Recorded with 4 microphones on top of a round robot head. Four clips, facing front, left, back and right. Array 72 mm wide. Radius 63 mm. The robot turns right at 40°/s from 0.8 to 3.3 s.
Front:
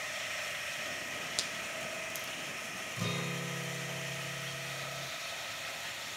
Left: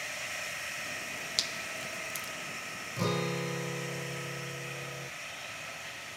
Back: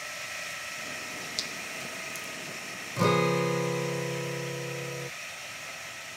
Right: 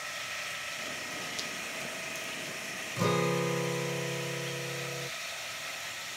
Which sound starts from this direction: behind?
A guitar, at 3.0 s.